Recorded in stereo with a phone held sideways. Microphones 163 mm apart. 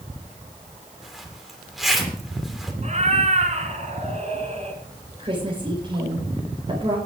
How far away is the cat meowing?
About 3 m.